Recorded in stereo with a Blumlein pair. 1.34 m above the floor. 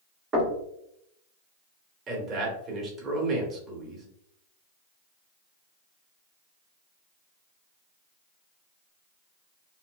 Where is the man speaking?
25° right, 1.1 m.